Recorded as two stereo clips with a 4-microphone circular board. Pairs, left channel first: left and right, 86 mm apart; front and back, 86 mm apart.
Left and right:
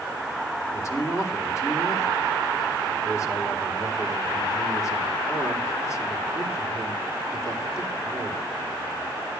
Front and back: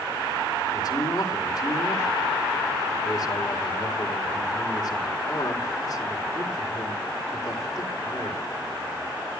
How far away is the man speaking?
About 3.5 m.